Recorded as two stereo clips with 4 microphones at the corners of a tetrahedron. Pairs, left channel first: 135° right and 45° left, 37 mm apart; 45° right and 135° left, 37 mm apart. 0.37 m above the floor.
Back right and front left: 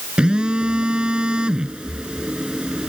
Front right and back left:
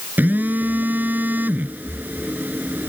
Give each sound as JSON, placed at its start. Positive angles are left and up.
{"t": 0.2, "sound": "a phone buzzing", "azimuth_deg": 110}